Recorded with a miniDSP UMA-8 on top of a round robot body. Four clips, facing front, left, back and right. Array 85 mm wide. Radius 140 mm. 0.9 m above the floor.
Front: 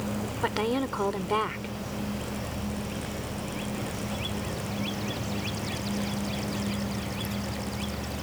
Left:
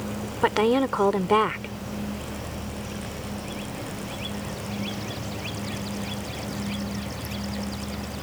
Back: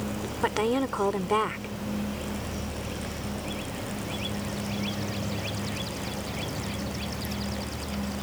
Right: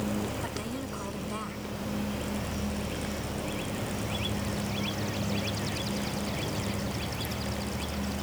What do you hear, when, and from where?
0.4 s a woman speaking: 100° left